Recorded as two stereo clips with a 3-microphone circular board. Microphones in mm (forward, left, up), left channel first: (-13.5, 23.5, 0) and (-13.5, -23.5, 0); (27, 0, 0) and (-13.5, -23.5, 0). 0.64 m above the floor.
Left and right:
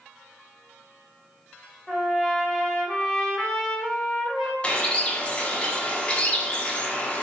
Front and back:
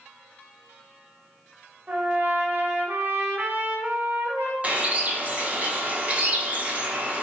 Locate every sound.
1.9 s a trumpet: 170° left, 0.7 m
4.6 s a bird: 155° left, 0.7 m